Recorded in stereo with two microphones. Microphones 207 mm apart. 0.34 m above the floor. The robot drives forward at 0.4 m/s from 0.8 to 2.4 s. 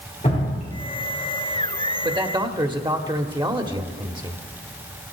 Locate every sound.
0.2 s dripping: 35° left (ahead or behind), 4 m
2.0 s a man speaking: 25° right (ahead or behind), 1.0 m; by 4.4 s 20° right (ahead or behind), 1.0 m